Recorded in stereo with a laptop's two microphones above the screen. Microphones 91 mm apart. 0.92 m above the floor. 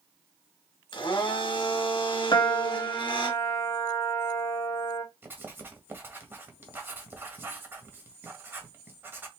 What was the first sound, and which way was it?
A blender, 55° left (ahead or behind).